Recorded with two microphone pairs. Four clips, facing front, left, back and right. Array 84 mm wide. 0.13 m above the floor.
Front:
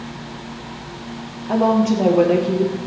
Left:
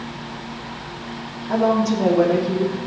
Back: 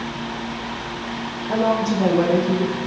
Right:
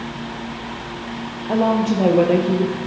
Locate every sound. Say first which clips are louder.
1.5 s a woman speaking: even, front 3 dB; 55° right, 2.5 m; by 2.8 s 50° right, 2 m